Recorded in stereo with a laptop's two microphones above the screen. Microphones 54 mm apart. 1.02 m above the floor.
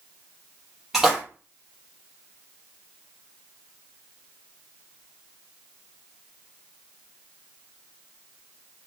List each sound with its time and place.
0.9 s a splash: 5° right (ahead or behind), 1.1 m